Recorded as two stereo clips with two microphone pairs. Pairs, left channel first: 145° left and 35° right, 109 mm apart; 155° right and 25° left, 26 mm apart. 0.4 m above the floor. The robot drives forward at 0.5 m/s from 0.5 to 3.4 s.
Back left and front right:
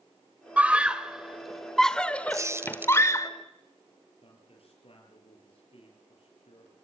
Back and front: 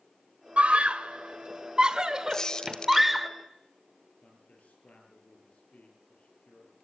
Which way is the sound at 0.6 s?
35° left.